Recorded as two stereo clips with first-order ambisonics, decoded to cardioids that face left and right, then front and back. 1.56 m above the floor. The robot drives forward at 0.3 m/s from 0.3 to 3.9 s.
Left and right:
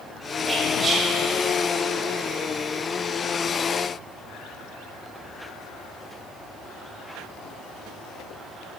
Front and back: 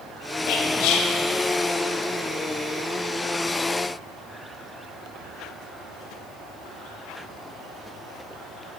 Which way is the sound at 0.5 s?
15° right.